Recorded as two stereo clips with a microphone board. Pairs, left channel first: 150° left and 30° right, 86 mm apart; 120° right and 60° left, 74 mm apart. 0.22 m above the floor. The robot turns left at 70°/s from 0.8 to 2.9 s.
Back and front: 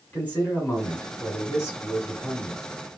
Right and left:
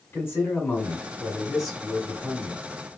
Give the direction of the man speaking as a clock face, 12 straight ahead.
5 o'clock.